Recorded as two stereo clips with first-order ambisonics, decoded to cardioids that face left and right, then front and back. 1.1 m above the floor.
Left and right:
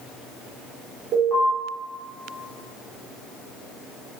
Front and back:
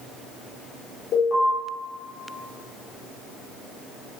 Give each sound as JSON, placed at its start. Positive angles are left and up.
{"t": 1.1, "sound": "an alarm", "azimuth_deg": -50, "distance_m": 4.5}